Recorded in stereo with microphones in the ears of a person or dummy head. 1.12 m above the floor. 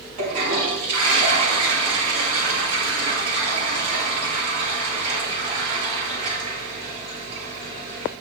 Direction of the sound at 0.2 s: 40° right (ahead or behind).